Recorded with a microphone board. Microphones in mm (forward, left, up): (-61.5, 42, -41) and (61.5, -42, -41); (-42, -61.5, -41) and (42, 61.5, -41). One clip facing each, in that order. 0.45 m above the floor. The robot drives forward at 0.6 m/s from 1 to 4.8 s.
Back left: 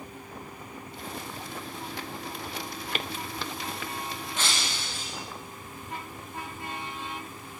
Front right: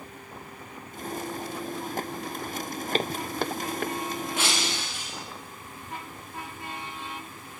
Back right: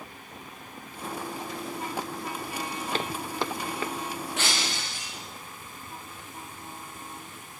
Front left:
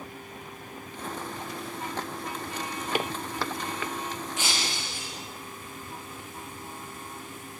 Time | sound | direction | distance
2.9 | footsteps | 10° right | 0.5 m
4.4 | breaking glass | 115° right | 6.5 m